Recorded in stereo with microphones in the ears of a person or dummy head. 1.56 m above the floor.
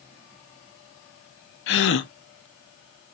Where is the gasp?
60° left (ahead or behind), 1.1 m.